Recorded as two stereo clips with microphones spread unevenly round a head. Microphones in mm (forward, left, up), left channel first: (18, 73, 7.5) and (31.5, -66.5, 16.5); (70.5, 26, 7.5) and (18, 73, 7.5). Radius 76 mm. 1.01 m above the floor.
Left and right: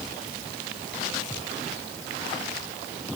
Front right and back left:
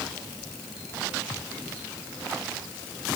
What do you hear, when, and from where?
Only background noise.